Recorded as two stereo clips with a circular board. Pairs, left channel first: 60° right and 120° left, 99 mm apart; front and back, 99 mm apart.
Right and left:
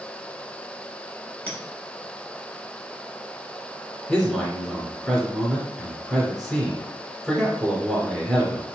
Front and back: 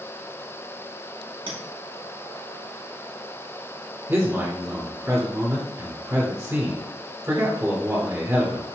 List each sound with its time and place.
1.5 s a clink: 15° left, 1.5 m
4.1 s a man speaking: 140° right, 1.4 m